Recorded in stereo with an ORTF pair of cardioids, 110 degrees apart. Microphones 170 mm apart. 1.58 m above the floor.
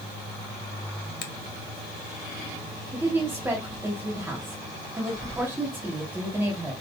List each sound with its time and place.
1.2 s a finger snap: 70° left, 1.2 m
2.9 s a woman speaking: 15° right, 1.9 m